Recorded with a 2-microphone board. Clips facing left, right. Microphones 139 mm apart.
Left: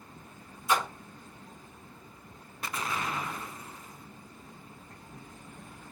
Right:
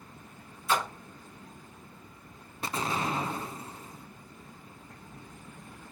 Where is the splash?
20° left (ahead or behind), 5 m.